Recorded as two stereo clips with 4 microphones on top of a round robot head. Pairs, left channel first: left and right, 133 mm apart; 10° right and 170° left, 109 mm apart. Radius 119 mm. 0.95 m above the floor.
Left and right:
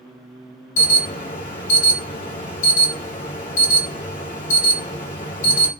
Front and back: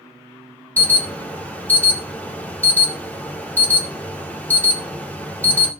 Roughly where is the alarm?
Ahead left.